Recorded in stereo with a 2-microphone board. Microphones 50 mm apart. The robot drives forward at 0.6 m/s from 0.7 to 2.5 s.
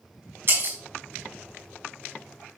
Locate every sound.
0.5 s breaking glass: 50° right (ahead or behind), 4.5 m